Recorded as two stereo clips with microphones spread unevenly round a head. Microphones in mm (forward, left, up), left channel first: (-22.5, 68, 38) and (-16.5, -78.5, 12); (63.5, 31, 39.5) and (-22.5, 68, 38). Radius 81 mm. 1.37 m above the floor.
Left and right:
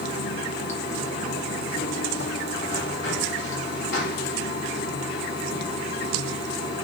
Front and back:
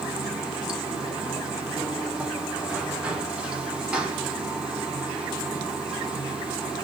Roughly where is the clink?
I don't hear a clink.